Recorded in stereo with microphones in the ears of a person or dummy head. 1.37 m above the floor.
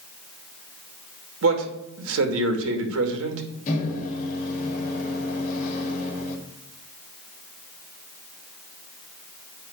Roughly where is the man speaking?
Right.